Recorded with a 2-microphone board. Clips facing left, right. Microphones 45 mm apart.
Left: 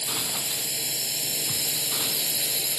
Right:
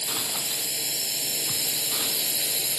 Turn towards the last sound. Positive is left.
turn(degrees=-5)  # may be behind; listen again after turning